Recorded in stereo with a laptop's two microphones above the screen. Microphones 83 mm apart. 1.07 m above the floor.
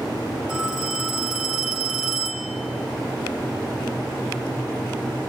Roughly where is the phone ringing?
Centre.